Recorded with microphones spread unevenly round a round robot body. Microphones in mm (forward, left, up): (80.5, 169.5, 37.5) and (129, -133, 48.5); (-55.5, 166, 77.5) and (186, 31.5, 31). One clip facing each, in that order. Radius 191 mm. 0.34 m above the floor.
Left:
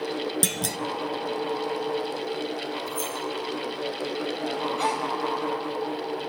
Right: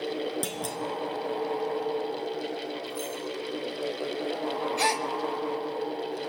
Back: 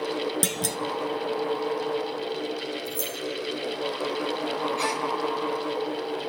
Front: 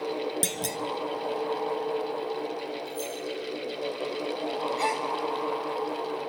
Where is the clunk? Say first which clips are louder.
Left 3 dB, back 3 dB; 70° left, 1.0 m.